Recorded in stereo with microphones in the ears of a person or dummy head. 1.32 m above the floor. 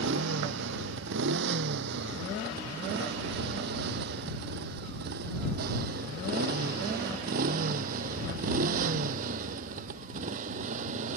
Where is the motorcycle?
65° right (ahead or behind); by 11.2 s 40° right (ahead or behind).